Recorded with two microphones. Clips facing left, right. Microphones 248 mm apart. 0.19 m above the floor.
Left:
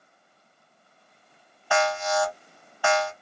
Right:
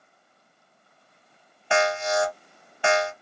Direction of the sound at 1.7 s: 25° right (ahead or behind).